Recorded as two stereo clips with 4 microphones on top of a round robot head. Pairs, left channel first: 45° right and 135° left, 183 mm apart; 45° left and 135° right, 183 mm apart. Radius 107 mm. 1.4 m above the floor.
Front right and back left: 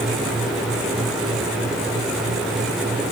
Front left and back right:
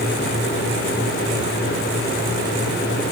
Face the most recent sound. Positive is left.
No sound to turn to.